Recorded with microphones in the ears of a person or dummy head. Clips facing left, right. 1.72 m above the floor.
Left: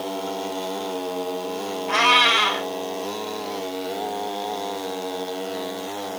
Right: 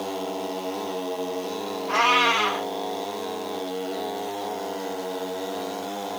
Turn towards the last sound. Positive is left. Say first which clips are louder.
# left 1 dB
turn(degrees=40)  # may be behind; listen again after turning